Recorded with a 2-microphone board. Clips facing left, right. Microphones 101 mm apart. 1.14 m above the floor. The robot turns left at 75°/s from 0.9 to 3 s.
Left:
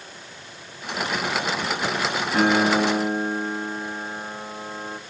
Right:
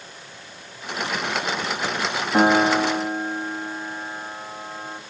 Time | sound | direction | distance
2.3 | a piano | 140° right | 2.5 m